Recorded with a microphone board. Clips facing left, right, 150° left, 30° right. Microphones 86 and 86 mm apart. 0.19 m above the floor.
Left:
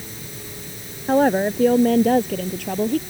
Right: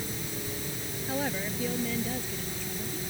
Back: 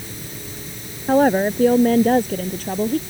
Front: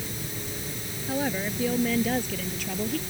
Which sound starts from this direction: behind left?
A woman speaking, at 1.1 s.